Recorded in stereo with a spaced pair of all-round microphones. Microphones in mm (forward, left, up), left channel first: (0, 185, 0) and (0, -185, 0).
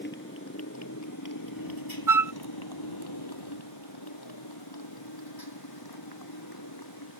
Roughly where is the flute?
Right.